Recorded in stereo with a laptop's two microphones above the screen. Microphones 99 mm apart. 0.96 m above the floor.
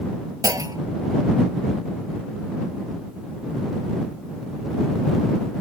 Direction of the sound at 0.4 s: 40° right (ahead or behind).